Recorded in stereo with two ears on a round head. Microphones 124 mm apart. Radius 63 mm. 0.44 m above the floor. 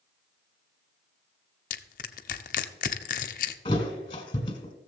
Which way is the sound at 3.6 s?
35° left (ahead or behind).